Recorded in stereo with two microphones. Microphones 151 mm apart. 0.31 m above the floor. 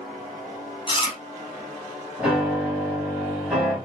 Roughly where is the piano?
Centre.